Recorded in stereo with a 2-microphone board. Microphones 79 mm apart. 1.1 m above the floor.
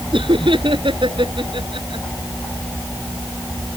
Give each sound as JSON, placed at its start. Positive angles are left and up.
{"t": 0.1, "sound": "laughter", "side_deg": -85}